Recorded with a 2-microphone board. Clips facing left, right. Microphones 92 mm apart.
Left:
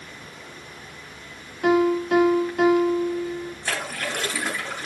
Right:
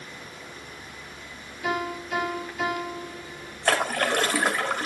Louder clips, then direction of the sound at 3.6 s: Right 9 dB; 60° right (ahead or behind).